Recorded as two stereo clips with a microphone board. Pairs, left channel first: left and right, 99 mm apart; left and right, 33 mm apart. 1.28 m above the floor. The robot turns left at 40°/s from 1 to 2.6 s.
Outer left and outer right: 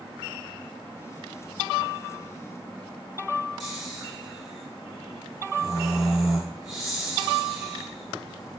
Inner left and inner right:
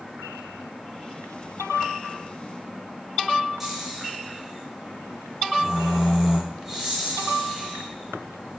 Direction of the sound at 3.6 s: 5° right (ahead or behind).